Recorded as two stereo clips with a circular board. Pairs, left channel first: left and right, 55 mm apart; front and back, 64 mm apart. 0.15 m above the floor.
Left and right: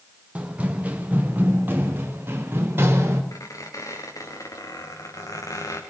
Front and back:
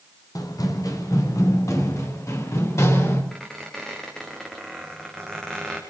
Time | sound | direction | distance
0.3 | running footsteps | 20° right | 3.5 m
3.3 | a squeak | 85° left | 5.5 m